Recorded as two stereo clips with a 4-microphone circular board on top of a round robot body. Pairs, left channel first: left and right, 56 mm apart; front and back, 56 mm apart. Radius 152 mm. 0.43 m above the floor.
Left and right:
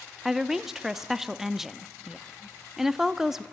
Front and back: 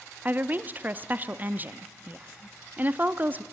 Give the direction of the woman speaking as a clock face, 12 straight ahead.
6 o'clock.